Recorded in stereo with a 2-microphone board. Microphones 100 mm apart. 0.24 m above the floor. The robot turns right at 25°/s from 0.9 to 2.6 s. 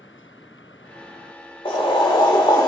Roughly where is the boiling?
Left.